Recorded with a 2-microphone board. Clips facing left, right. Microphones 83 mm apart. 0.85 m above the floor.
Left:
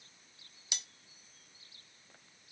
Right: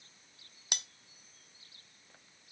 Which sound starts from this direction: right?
Cutlery clinking, at 0.7 s.